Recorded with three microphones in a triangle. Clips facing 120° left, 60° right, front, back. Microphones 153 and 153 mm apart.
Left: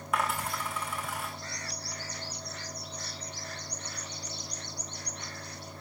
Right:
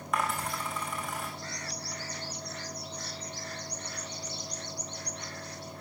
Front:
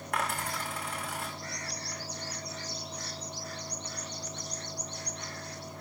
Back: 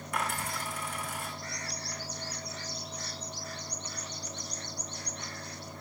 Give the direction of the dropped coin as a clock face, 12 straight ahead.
11 o'clock.